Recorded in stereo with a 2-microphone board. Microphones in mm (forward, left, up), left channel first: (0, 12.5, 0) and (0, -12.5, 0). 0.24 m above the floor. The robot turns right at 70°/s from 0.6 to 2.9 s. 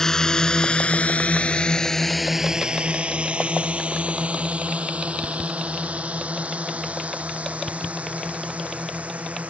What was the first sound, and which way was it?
A drone, 20° left (ahead or behind).